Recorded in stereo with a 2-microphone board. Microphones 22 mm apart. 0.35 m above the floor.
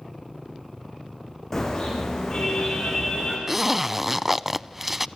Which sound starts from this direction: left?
A car horn, at 1.5 s.